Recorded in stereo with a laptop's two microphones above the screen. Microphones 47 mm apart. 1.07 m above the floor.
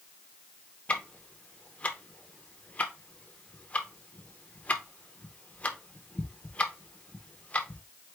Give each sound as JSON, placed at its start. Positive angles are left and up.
{"t": 0.9, "sound": "ticking", "side_deg": 30, "distance_m": 0.6}